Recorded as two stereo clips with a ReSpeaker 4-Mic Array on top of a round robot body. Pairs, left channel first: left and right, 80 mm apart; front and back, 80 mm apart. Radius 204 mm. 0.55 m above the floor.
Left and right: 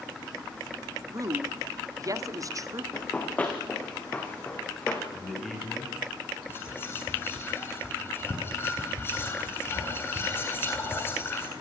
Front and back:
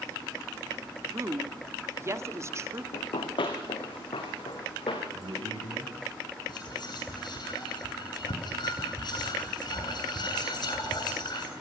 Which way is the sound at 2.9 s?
15° left.